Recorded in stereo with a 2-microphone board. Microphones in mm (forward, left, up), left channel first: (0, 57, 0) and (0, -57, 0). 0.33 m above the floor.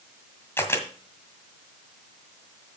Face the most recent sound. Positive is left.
turn(degrees=20)  # may be behind; listen again after turning